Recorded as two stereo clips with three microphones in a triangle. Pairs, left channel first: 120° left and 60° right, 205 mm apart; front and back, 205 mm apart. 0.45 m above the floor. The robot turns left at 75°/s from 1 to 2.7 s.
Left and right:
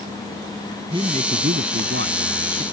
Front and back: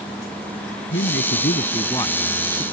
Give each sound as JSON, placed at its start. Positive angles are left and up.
{"t": 0.9, "sound": "a man speaking", "azimuth_deg": 5}